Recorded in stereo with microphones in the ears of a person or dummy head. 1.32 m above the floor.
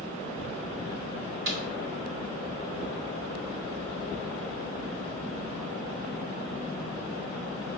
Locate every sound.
1.5 s a snare drum: 75° right (ahead or behind), 2.5 m